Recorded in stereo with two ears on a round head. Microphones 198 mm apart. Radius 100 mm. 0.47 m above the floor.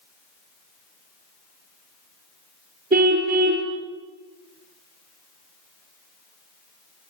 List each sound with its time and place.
2.9 s a car horn: 40° right (ahead or behind), 4.5 m